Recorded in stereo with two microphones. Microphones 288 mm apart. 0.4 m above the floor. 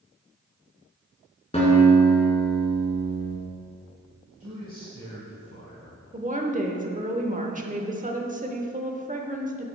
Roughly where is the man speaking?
Right.